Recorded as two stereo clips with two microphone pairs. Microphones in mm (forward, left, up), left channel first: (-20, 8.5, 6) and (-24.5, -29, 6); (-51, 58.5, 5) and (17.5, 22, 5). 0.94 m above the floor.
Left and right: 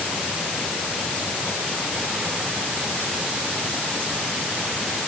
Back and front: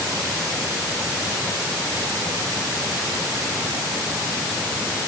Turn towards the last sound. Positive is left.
No sound to turn to.